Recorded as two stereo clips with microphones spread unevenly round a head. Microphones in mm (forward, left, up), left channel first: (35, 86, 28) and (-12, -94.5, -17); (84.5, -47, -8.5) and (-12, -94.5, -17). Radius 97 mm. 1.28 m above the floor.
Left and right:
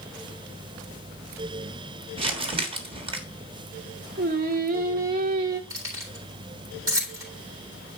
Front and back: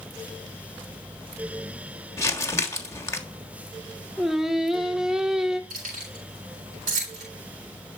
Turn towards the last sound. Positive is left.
turn(degrees=180)